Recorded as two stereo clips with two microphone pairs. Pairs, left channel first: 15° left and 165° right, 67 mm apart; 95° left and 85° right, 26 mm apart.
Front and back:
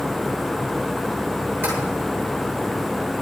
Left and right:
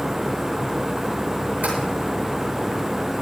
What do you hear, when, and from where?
1.6 s tapping: 110° right, 8 m